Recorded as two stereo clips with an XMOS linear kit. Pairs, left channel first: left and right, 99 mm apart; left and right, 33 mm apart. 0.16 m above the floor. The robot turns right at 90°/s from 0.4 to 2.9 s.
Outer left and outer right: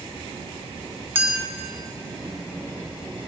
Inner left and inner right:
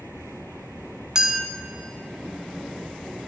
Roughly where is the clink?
Centre.